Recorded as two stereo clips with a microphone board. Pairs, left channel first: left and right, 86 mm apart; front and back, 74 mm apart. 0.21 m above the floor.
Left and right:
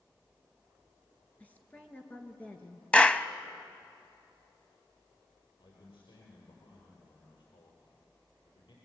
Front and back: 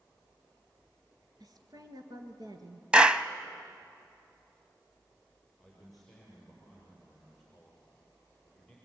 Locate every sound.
1.4 s a woman speaking: 160° left, 3 m
2.9 s a clap: 135° left, 0.7 m
5.6 s a man speaking: 85° left, 6 m